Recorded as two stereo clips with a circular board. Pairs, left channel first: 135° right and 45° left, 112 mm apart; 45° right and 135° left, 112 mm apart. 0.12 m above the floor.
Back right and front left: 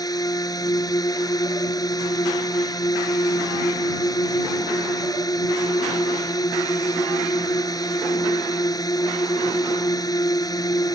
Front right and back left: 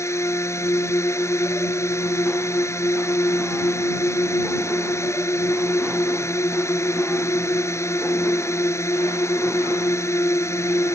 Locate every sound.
0.0 s a drone: 100° right